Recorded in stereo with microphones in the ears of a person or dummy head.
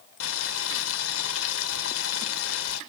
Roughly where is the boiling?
Left.